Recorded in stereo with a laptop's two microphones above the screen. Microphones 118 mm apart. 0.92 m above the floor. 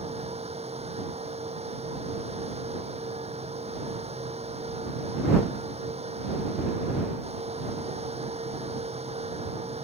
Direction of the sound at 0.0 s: 65° right (ahead or behind).